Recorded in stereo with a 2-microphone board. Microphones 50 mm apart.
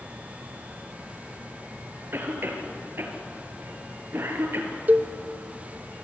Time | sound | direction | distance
2.1 | a cough | 45° right (ahead or behind) | 3.5 m
4.9 | a cowbell | 30° right (ahead or behind) | 0.6 m